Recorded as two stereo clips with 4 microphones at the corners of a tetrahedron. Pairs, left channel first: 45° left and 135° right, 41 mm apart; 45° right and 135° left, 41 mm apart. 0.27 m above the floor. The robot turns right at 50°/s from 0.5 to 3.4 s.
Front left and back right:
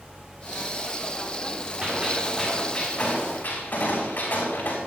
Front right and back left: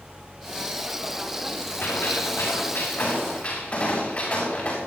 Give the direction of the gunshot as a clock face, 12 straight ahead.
2 o'clock.